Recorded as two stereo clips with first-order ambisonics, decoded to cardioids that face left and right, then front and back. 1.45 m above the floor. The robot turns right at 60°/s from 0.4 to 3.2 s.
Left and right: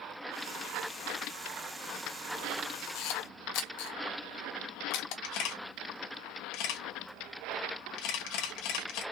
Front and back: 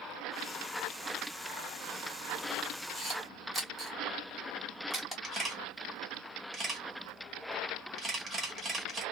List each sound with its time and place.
3.0 s a camera shutter: 80° left, 1.3 m; by 5.1 s 95° left, 1.3 m
5.2 s a camera shutter: 105° left, 1.6 m